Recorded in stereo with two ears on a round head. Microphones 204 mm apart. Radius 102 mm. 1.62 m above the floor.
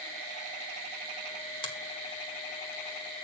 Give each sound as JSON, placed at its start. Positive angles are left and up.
{"t": 1.6, "sound": "a finger snap", "side_deg": 25, "distance_m": 1.8}